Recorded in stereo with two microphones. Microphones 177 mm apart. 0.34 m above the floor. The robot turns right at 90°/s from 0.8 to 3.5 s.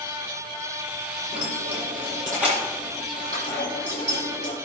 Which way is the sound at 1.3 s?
70° right (ahead or behind).